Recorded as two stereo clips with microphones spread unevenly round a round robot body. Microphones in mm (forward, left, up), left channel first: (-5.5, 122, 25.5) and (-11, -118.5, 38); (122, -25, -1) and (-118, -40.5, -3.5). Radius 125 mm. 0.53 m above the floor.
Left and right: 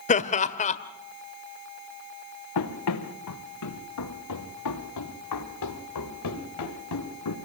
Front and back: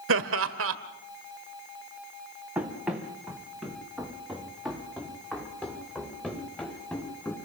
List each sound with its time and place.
0.1 s laughter: 145° left, 1.6 m
2.5 s running footsteps: 100° left, 3.5 m; by 7.3 s 90° left, 6 m